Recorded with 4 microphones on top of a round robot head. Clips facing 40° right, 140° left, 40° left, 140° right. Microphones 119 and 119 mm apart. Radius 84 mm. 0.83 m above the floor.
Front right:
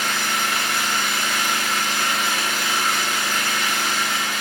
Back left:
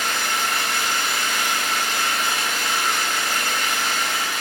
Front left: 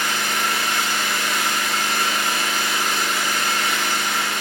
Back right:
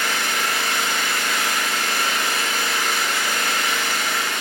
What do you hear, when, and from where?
0.0 s an engine running: 125° right, 1.7 m